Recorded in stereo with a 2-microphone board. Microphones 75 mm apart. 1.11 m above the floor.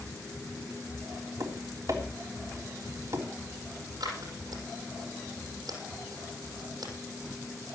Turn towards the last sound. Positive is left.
turn(degrees=-70)  # may be behind; listen again after turning